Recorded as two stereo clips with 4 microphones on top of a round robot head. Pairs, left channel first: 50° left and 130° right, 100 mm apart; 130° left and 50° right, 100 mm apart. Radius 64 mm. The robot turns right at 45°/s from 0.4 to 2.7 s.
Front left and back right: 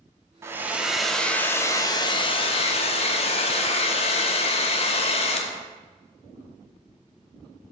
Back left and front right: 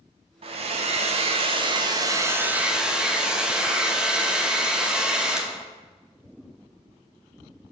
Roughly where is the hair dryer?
Right.